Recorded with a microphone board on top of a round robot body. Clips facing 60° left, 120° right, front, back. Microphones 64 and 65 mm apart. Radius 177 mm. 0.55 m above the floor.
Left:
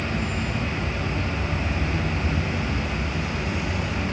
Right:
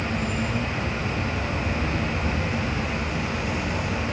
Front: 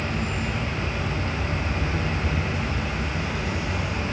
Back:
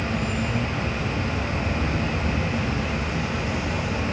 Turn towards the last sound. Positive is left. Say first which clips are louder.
# right 1 dB, back 2 dB
turn(degrees=-155)